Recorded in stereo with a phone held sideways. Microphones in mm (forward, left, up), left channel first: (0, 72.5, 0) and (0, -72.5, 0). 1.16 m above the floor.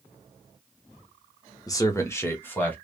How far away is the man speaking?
About 0.7 m.